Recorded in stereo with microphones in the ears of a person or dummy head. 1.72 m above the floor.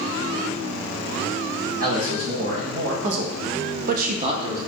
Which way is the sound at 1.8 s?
45° right (ahead or behind).